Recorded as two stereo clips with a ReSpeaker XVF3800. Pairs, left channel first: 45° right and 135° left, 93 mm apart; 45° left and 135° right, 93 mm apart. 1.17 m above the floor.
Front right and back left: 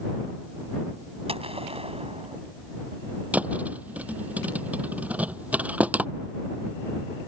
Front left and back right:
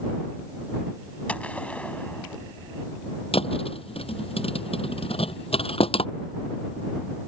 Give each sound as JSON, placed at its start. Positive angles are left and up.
{"t": 1.3, "sound": "a gunshot", "azimuth_deg": 120}
{"t": 3.3, "sound": "a thud", "azimuth_deg": 60}